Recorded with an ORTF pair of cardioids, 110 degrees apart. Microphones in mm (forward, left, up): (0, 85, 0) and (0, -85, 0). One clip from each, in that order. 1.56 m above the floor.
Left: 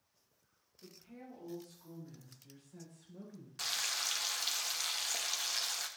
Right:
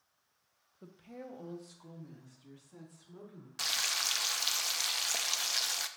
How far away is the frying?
About 0.5 m.